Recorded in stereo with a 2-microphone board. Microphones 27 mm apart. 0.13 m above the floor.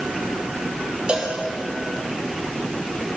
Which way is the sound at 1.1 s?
40° right (ahead or behind).